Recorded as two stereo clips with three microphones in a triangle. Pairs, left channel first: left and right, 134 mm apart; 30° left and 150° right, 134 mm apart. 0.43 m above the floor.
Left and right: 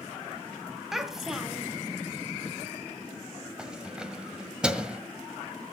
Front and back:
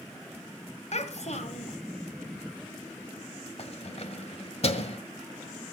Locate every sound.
0.9 s a child speaking: 5° right, 1.5 m
3.6 s keys jangling: 5° right, 1.4 m